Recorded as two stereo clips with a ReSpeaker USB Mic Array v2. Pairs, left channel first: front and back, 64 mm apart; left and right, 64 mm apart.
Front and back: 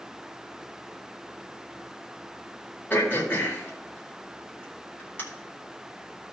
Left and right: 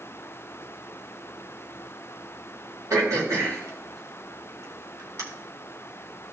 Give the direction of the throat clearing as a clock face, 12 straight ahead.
2 o'clock.